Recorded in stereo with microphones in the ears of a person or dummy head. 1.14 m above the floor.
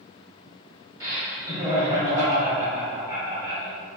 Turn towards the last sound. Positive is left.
turn(degrees=-20)  # may be behind; listen again after turning